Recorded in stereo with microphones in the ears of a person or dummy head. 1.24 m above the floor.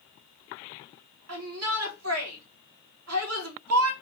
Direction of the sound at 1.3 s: 80° right.